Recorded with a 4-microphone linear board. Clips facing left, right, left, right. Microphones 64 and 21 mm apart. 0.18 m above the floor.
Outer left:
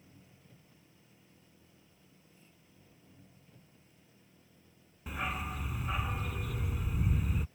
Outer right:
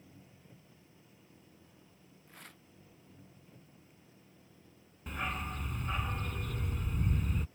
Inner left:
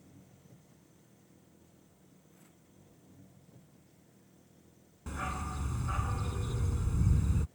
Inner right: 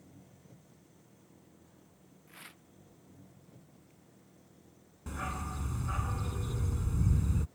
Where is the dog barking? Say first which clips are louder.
Outer left 1 dB, inner left 1 dB; 5° left (ahead or behind).